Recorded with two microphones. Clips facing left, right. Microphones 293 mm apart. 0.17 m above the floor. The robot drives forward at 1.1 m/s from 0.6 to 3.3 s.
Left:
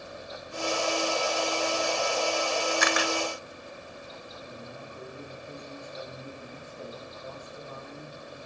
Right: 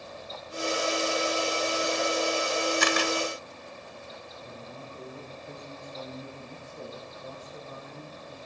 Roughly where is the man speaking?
Right.